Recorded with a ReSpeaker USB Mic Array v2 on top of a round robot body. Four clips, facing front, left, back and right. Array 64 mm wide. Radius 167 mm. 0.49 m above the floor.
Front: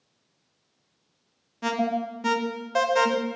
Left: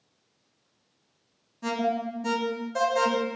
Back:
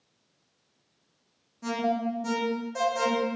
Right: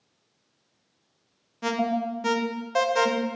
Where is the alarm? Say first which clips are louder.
Right 2 dB, front 2 dB; 35° right, 0.8 m.